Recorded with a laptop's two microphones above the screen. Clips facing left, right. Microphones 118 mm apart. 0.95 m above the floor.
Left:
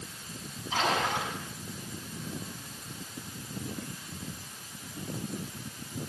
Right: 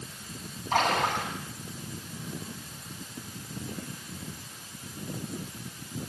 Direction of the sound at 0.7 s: 60° right (ahead or behind).